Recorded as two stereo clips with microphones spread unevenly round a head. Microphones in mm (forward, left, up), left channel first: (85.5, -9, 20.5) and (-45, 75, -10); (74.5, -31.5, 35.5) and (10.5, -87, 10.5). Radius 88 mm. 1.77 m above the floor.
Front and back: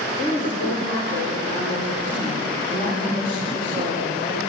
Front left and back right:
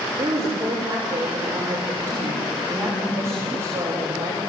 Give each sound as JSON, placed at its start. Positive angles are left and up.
{"t": 0.2, "sound": "a woman speaking", "azimuth_deg": -80, "distance_m": 6.5}